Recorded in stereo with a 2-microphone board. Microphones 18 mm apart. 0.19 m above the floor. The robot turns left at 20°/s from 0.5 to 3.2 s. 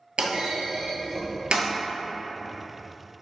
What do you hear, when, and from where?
0.2 s a clunk: 75° right (ahead or behind), 0.5 m; by 1.7 s 80° right, 0.5 m